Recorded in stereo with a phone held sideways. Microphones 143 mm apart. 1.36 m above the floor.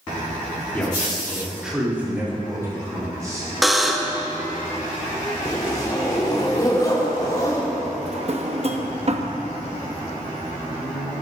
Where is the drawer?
45° right (ahead or behind), 0.9 m.